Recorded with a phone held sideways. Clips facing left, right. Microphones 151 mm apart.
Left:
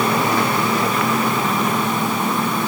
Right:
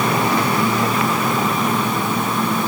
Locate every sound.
Only background noise.